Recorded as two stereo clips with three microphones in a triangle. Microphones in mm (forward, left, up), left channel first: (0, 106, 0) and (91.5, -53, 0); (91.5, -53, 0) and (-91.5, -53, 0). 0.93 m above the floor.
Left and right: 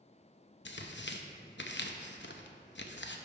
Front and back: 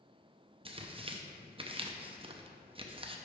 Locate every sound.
0.7 s tearing paper: 120° left, 0.5 m